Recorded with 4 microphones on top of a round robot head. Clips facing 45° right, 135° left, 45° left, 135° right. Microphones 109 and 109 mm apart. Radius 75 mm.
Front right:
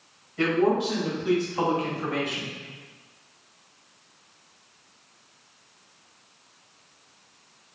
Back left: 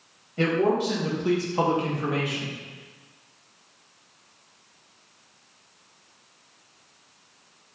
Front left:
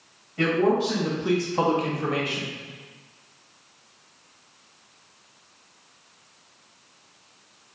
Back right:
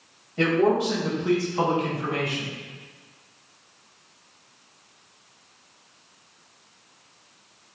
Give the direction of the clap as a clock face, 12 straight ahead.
No clap in this recording.